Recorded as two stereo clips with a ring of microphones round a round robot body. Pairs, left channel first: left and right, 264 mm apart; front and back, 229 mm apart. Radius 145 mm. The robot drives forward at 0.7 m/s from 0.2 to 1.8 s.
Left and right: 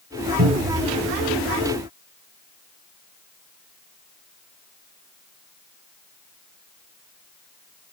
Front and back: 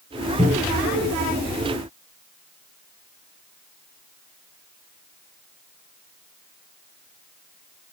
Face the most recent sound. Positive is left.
turn(degrees=-95)